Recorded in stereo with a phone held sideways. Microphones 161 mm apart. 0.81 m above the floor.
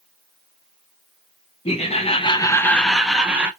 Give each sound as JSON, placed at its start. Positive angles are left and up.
{"t": 1.6, "sound": "laughter", "side_deg": 40, "distance_m": 0.7}